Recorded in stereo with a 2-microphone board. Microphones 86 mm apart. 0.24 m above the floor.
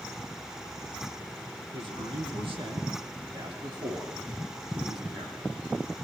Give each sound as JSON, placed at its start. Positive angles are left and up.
{"t": 1.7, "sound": "a man speaking", "side_deg": -80, "distance_m": 7.0}